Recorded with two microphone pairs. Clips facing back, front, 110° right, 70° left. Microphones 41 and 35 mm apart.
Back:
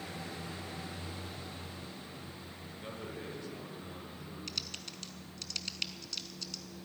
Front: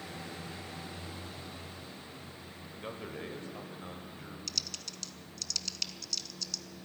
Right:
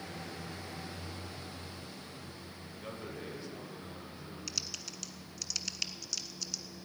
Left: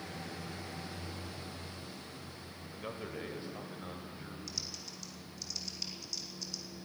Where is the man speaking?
30° left, 1.5 m; by 4.4 s 20° left, 2.5 m.